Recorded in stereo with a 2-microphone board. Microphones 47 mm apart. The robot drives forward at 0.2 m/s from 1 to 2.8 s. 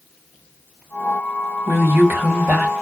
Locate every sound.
1.7 s a woman speaking: 55° right (ahead or behind), 1.3 m; by 2.7 s 45° right (ahead or behind), 1.5 m